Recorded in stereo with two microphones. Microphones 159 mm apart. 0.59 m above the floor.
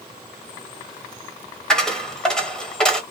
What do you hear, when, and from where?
1.7 s a dropped coin: 5° left (ahead or behind), 0.8 m